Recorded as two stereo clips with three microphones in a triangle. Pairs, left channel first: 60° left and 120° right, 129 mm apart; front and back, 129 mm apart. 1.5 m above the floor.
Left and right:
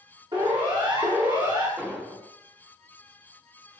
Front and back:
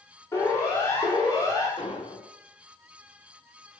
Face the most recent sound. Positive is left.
turn(degrees=-45)